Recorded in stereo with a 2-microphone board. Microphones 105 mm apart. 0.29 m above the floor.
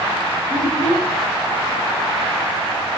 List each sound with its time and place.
0.5 s a child speaking: 40° left (ahead or behind), 4 m